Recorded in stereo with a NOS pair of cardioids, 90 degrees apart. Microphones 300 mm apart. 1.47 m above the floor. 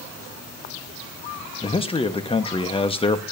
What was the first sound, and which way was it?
A man speaking, 20° left.